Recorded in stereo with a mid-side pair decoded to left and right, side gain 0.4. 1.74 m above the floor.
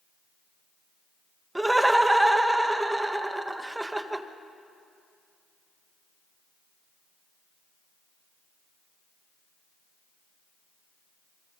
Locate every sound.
1.6 s laughter: 15° right, 1.7 m